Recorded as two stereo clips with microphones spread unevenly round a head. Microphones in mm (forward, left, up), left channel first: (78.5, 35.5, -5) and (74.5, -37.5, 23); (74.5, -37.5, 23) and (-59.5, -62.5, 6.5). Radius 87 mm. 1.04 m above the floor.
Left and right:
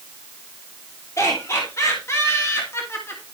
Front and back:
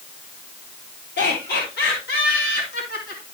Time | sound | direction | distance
1.2 | laughter | 45° left | 3.5 m